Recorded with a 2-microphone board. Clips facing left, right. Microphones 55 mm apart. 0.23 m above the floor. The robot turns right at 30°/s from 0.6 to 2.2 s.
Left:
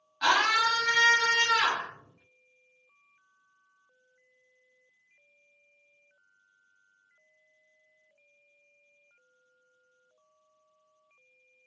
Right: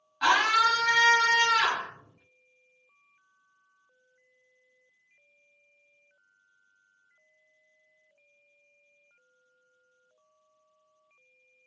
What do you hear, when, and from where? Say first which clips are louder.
0.2 s a scream: right 2 dB; 10° right (ahead or behind), 1.7 m; by 1.9 s 20° right (ahead or behind), 1.7 m